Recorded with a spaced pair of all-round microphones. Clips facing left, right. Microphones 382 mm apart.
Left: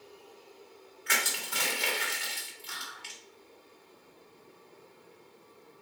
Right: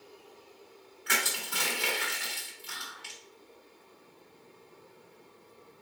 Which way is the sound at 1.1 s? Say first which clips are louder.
Right 1 dB; 20° right (ahead or behind).